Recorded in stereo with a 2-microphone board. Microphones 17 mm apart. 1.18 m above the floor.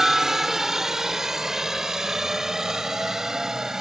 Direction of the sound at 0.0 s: 30° right (ahead or behind).